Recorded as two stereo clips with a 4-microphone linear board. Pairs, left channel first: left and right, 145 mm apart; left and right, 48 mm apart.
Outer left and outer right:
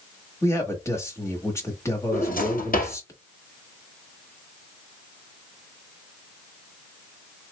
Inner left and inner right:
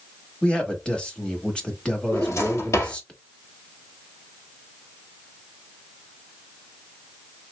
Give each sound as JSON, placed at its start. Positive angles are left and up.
{"t": 0.4, "sound": "a man speaking", "side_deg": 20, "distance_m": 1.2}
{"t": 2.1, "sound": "a drawer", "side_deg": 80, "distance_m": 1.9}